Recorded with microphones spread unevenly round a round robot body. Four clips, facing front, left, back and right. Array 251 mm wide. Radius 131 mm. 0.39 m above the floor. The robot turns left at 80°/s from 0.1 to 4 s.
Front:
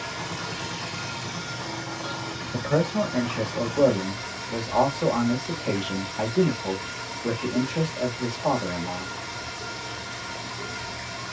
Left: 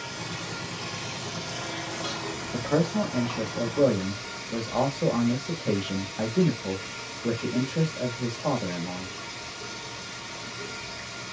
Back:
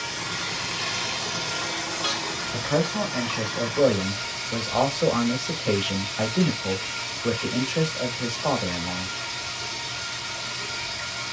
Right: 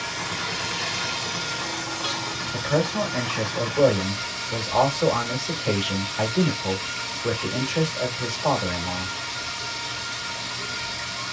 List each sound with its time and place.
0.0 s running water: 50° right, 1.1 m; by 11.3 s straight ahead, 1.1 m
2.5 s a man speaking: 35° left, 1.2 m; by 9.1 s 80° right, 1.2 m